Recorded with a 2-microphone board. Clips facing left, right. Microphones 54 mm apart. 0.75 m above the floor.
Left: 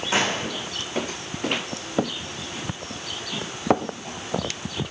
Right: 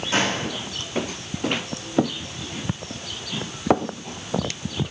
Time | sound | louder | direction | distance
0.1 | a gunshot | right 1 dB | 25° left (ahead or behind) | 9.5 m